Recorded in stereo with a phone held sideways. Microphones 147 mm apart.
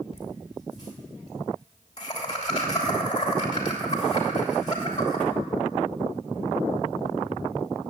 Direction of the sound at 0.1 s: 30° left (ahead or behind).